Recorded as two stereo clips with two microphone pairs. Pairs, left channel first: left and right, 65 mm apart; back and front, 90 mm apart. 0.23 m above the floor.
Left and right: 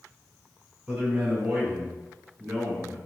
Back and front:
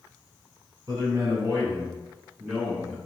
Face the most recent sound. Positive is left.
turn(degrees=-120)